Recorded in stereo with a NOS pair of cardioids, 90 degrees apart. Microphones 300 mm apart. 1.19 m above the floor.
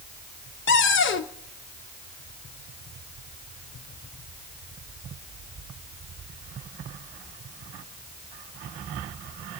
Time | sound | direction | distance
0.7 | a cupboard door | 40° left | 1.1 m